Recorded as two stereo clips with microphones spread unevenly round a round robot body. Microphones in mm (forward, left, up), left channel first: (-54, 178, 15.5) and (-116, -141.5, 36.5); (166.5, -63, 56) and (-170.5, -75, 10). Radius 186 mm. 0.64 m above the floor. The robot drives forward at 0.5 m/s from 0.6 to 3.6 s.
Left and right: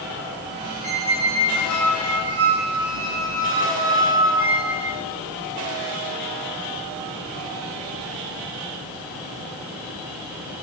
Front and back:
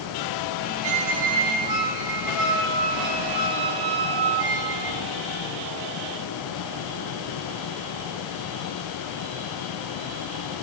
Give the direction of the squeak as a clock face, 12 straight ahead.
5 o'clock.